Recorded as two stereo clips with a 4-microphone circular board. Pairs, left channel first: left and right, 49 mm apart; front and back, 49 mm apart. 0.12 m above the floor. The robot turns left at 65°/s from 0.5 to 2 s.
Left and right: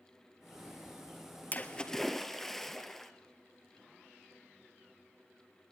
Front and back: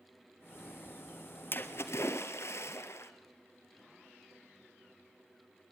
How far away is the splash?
About 1.2 m.